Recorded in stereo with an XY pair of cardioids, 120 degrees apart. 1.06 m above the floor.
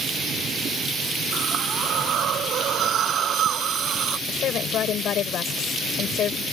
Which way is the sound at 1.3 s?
55° right.